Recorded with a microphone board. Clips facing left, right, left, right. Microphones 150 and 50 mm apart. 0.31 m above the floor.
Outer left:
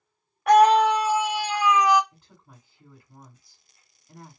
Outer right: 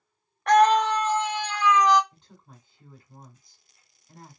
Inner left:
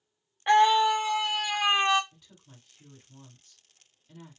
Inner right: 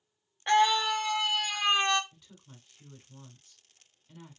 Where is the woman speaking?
5° left (ahead or behind), 1.8 m.